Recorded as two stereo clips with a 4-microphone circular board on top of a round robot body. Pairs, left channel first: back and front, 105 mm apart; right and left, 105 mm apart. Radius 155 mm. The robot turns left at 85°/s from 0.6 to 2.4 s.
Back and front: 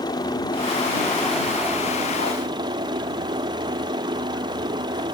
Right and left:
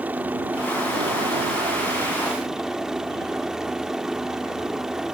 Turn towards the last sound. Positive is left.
turn(degrees=5)